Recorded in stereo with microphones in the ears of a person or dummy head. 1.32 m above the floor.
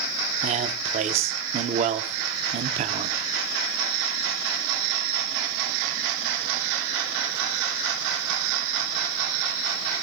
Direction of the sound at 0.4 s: 35° right (ahead or behind).